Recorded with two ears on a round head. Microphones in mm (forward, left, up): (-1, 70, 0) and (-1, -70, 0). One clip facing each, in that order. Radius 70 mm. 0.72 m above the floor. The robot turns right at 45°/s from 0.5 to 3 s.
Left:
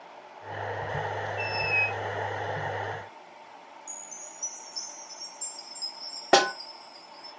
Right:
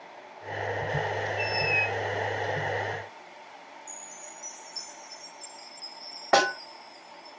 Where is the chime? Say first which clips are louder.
Right 1 dB; 85° left, 3 m.